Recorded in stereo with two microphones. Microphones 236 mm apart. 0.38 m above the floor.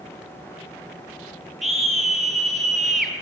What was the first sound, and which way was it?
A scream, centre (ahead or behind).